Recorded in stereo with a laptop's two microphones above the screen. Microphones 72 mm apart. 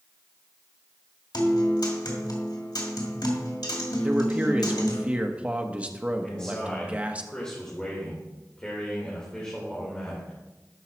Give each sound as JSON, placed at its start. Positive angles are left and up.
{"t": 1.3, "sound": "a guitar", "side_deg": 75, "distance_m": 2.5}
{"t": 4.0, "sound": "a man speaking", "side_deg": -20, "distance_m": 1.2}
{"t": 6.2, "sound": "a man speaking", "side_deg": 10, "distance_m": 3.0}